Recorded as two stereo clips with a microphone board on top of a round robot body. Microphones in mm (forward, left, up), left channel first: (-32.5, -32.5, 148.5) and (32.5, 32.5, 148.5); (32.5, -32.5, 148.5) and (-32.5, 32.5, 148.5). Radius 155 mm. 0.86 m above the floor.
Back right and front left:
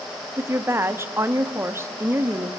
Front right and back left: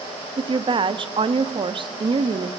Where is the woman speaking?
110° left, 1.6 m.